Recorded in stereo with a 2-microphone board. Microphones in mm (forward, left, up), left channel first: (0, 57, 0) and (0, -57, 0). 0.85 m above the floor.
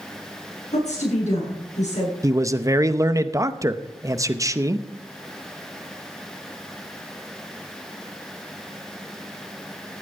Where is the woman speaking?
90° left, 8.5 m.